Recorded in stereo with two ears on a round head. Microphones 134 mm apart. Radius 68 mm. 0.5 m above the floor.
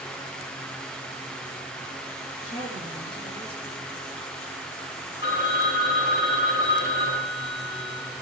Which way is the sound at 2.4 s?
35° left (ahead or behind).